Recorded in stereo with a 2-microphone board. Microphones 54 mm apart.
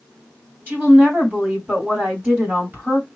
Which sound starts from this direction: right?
A woman speaking, at 0.7 s.